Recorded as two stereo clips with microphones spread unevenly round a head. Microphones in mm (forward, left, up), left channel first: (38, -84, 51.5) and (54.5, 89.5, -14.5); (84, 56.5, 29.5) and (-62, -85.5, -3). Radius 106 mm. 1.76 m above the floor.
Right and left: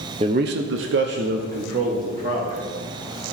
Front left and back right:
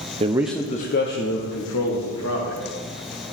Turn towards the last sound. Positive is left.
turn(degrees=35)